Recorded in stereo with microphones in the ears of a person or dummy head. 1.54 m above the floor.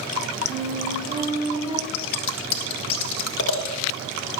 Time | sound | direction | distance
0.5 | a flute | 30° right (ahead or behind) | 4 m
1.9 | scissors | 70° left (ahead or behind) | 1.9 m